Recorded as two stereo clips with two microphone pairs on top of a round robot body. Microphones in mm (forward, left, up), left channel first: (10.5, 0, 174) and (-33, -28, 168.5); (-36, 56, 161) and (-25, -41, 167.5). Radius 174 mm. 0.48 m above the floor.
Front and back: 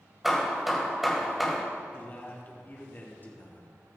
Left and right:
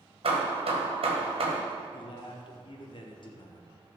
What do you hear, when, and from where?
0.2 s hammering: 60° right, 1.7 m
1.9 s a man speaking: 85° left, 2.5 m